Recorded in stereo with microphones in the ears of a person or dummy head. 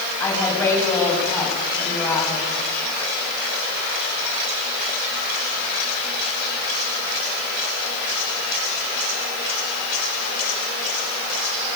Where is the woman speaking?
15° left (ahead or behind), 9.5 m.